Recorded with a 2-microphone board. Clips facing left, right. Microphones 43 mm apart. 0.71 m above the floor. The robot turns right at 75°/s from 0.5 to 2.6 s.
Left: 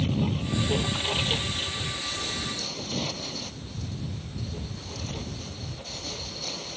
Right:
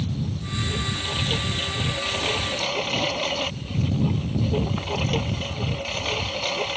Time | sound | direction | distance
0.0 | a lawn mower | 120° left | ?